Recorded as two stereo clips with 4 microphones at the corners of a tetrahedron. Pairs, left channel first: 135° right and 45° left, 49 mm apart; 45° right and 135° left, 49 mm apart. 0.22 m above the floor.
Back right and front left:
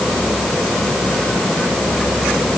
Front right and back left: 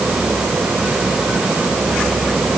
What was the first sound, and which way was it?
Only background noise.